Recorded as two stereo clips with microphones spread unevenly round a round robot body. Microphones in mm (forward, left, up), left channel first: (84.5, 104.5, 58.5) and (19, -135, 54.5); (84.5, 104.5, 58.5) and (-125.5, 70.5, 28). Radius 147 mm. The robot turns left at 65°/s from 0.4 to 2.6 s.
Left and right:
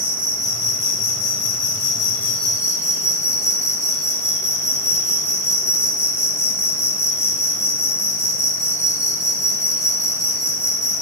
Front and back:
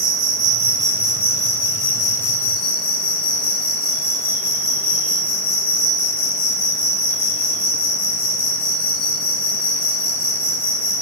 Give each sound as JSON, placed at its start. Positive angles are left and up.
{"t": 0.0, "sound": "an insect", "azimuth_deg": 140, "distance_m": 0.7}